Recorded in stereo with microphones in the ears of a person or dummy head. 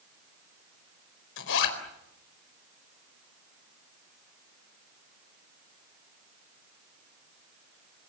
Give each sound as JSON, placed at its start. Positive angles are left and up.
{"t": 1.4, "sound": "a zipper", "side_deg": 75, "distance_m": 4.5}